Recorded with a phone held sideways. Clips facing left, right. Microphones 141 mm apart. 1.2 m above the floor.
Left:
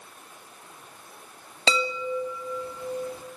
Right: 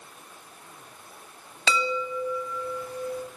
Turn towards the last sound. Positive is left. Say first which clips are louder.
# left 1 dB
turn(degrees=25)  # may be behind; listen again after turning